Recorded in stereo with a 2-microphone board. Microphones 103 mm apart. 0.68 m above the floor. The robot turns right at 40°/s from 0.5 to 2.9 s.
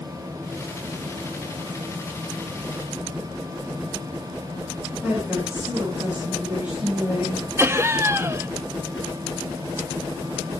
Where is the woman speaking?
15° right (ahead or behind), 9 m.